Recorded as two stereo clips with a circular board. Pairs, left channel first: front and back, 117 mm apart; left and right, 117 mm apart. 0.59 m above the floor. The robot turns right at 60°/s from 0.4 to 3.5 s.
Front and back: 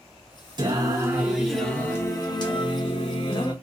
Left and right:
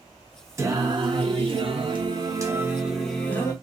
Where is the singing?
145° right, 0.7 m; by 3.5 s 30° left, 0.7 m.